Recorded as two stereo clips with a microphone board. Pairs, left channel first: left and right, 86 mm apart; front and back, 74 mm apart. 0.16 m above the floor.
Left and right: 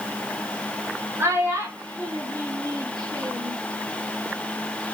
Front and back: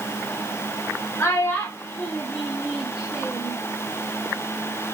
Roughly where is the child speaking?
Ahead right.